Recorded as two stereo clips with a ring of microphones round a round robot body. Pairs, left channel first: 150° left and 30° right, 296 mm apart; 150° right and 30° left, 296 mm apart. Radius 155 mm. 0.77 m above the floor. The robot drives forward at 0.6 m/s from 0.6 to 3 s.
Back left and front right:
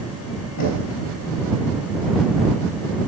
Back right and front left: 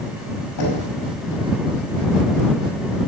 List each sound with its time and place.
0.6 s knocking: 175° right, 5 m